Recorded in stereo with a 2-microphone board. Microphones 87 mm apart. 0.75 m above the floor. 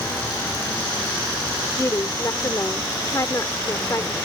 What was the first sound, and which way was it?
A woman speaking, 40° left (ahead or behind).